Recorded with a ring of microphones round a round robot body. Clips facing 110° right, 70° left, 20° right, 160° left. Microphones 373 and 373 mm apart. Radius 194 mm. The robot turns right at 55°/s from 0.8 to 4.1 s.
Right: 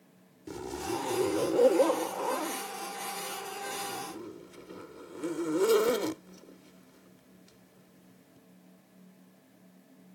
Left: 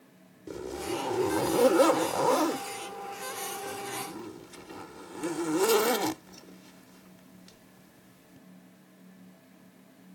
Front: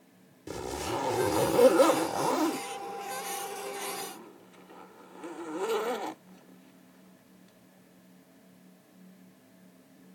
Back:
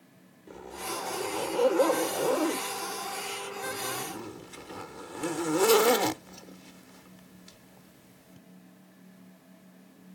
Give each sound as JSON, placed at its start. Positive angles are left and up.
{"t": 0.5, "sound": "a zipper", "azimuth_deg": -35}